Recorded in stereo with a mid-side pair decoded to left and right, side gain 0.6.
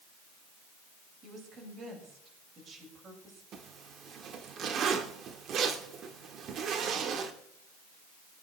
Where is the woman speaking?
40° right, 6.5 m.